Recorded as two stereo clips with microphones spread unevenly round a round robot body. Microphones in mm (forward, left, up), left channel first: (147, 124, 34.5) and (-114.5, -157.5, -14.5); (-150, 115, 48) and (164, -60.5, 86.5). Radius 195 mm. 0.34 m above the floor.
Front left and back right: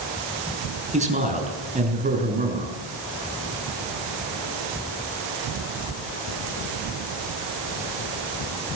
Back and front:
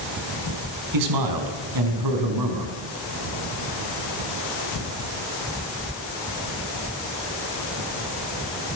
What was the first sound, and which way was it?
A man speaking, 65° right.